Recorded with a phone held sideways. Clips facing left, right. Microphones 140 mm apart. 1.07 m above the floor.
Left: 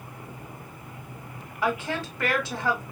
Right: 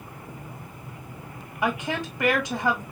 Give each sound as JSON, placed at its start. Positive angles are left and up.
{"t": 1.6, "sound": "a woman speaking", "side_deg": -10, "distance_m": 1.6}